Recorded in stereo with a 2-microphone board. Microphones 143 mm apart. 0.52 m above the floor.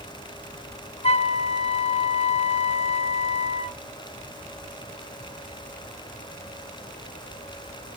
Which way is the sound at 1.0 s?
45° left (ahead or behind).